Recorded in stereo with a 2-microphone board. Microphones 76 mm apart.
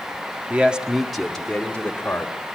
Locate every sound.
0.5 s a man speaking: 20° right (ahead or behind), 1.5 m; by 2.3 s 25° left (ahead or behind), 2.5 m